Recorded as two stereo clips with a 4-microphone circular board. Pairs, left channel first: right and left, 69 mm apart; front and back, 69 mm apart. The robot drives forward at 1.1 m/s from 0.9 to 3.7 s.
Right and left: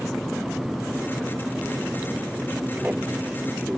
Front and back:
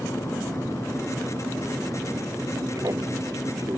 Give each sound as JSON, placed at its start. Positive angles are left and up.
{"t": 0.0, "sound": "an aircraft", "azimuth_deg": 160}